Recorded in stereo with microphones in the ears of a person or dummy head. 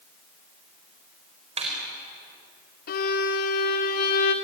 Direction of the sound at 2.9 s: 45° left (ahead or behind).